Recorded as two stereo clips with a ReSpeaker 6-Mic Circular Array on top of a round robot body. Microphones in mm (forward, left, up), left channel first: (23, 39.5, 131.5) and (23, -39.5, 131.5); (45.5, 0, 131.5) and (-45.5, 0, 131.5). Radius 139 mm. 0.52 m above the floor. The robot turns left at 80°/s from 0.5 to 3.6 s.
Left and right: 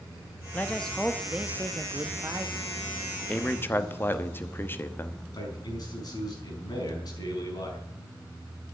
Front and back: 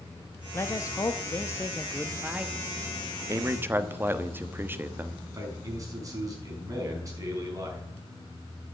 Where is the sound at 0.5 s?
40° left, 1.0 m; by 2.6 s 125° right, 1.0 m.